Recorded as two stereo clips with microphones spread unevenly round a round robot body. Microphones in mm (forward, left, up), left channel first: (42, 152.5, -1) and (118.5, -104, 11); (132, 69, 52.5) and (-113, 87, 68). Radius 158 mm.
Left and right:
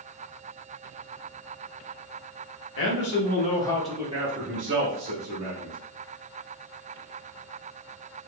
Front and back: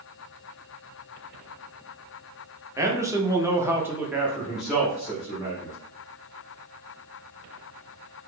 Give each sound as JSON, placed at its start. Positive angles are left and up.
{"t": 2.8, "sound": "a man speaking", "azimuth_deg": 95, "distance_m": 1.0}